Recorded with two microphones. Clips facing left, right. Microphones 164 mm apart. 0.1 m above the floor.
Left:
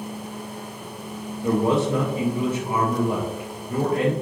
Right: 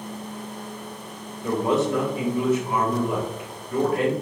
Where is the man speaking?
30° left (ahead or behind), 1.7 m.